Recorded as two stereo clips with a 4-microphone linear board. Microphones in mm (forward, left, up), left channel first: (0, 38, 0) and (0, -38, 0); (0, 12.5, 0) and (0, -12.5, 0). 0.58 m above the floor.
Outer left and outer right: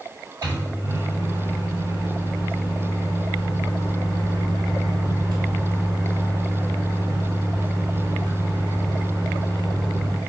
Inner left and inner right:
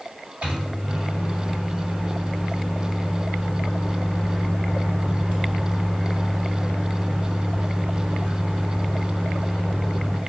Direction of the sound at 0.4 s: 65° right (ahead or behind).